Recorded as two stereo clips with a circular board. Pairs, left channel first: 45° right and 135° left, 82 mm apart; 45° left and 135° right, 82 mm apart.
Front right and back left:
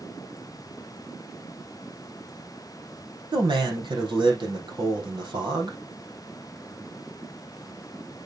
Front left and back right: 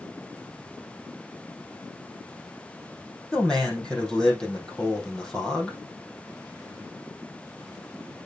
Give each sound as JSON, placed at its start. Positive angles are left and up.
{"t": 3.3, "sound": "a man speaking", "azimuth_deg": 125, "distance_m": 3.5}